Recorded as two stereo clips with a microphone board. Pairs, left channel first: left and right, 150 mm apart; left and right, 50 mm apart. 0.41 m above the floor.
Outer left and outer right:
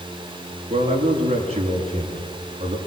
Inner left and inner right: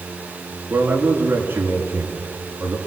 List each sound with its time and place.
0.7 s a man speaking: 45° right (ahead or behind), 6 m